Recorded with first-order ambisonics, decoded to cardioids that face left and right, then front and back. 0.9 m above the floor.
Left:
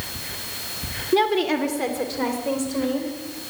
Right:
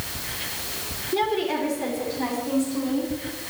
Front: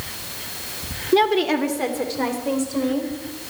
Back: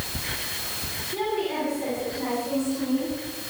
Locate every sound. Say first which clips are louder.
1.1 s a woman speaking: left 4 dB, front 10 dB; 25° left, 1.5 m; by 3.1 s 45° left, 4.5 m